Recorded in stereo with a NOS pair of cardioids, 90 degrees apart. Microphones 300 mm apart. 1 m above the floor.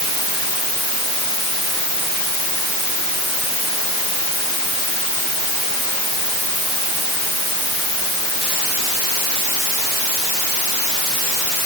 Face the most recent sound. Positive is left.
No sound to turn to.